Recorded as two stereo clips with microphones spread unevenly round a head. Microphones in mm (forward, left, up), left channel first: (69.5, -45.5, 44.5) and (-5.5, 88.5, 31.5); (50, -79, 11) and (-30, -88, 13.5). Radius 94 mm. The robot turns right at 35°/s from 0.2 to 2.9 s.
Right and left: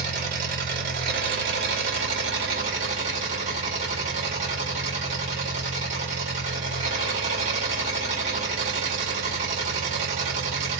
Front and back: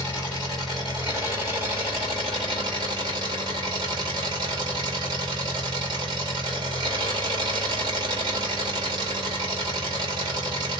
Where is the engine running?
80° left, 1.5 m; by 10.8 s 175° left, 1.5 m.